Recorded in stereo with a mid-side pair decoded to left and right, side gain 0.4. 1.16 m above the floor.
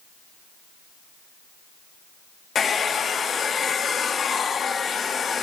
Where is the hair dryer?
50° left, 2 m.